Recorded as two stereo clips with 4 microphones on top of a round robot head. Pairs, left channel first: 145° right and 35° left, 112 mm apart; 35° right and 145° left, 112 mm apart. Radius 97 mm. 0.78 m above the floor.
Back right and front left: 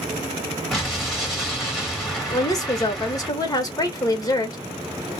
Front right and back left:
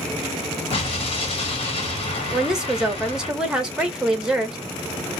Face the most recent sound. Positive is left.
turn(degrees=-135)